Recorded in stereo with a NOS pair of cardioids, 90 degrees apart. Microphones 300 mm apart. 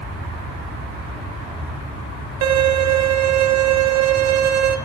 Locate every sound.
2.4 s a violin: 60° right, 0.9 m